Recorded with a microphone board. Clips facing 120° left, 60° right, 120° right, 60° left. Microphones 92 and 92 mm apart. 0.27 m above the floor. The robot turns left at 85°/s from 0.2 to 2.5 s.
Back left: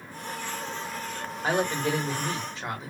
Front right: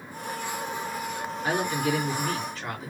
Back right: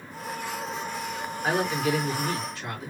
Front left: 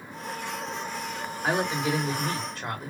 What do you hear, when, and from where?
1.4 s a woman speaking: 150° left, 1.5 m; by 2.9 s 60° left, 1.5 m